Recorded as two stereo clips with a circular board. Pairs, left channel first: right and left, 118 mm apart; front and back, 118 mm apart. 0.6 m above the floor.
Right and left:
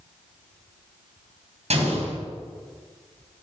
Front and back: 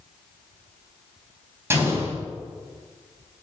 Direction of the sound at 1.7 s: 110° left.